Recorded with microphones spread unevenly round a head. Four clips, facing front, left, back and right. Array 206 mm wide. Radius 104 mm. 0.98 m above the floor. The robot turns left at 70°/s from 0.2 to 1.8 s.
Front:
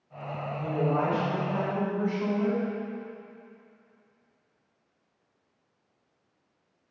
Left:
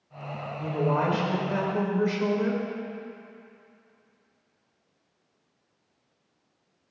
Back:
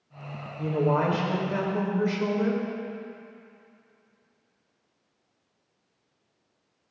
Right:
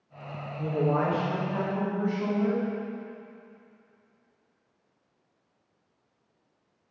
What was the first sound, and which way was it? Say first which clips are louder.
A man speaking: even, back 3 dB; 135° right.